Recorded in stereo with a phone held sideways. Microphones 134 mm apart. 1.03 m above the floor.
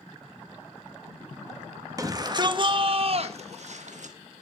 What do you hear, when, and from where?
2.0 s a shout: 25° right (ahead or behind), 1.7 m; by 4.2 s 65° right (ahead or behind), 1.6 m